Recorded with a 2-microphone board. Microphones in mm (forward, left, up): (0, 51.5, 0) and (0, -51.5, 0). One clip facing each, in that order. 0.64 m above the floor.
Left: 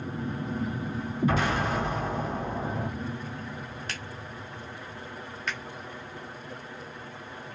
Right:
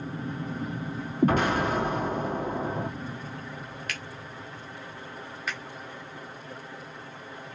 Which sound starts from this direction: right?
An explosion, at 1.2 s.